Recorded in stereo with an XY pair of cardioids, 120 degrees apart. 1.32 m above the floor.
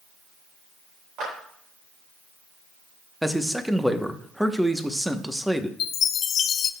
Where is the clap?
65° right, 4 m.